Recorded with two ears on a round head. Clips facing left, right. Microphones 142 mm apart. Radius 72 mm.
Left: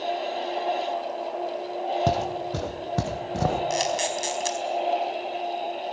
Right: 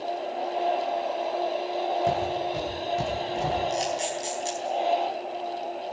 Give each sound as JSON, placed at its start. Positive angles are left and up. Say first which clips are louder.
{"t": 2.1, "sound": "footsteps", "louder": "even", "side_deg": 50, "distance_m": 2.5}
{"t": 3.7, "sound": "a camera shutter", "louder": "left 2 dB", "side_deg": 80, "distance_m": 4.5}